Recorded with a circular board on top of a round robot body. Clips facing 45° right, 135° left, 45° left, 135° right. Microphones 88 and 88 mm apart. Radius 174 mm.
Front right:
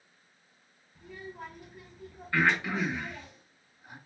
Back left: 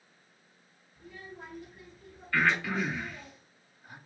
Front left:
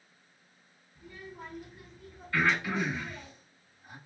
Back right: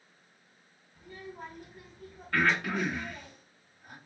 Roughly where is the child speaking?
Right.